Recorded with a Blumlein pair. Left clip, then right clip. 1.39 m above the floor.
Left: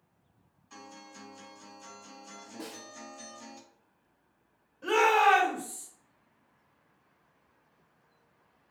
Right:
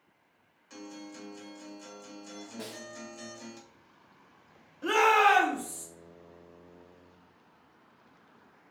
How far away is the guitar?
About 1.6 m.